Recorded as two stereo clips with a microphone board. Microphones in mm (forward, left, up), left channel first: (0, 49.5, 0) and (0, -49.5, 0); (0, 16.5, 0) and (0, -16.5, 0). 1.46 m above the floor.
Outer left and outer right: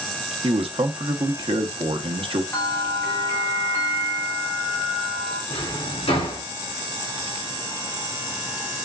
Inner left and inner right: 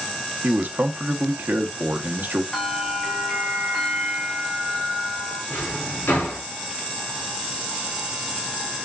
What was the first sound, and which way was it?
A man speaking, 65° right (ahead or behind).